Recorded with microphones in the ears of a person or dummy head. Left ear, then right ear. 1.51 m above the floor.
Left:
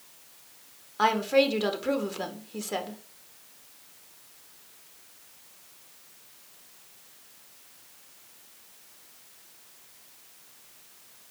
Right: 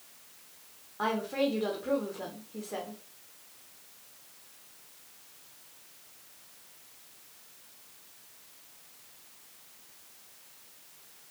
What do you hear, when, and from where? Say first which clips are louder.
1.0 s a woman speaking: left 8 dB; 75° left (ahead or behind), 1.7 m